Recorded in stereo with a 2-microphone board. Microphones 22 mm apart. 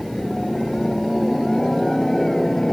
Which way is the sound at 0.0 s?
20° left (ahead or behind).